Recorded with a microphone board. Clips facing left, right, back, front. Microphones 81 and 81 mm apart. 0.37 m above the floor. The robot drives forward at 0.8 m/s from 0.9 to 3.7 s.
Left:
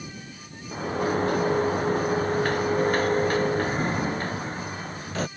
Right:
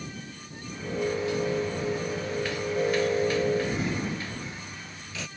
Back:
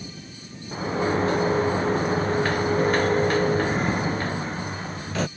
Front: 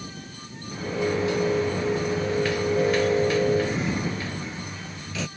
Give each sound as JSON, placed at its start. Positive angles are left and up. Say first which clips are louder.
{"t": 0.7, "sound": "a sliding door", "louder": "left 4 dB, back 2 dB", "azimuth_deg": 130}